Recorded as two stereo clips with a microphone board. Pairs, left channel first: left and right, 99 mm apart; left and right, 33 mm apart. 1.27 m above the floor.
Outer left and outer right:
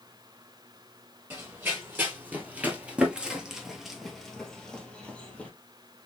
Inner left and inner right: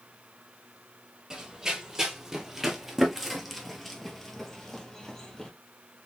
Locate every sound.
1.3 s running footsteps: 20° right (ahead or behind), 1.8 m; by 5.5 s 15° left (ahead or behind), 1.6 m